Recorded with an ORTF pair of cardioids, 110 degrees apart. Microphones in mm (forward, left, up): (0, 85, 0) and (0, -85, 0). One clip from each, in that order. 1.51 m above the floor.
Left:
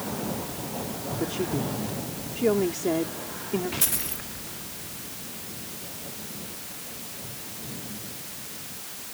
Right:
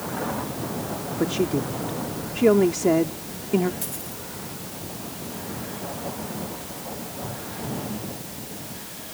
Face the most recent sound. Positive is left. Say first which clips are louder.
# left 4 dB
turn(degrees=50)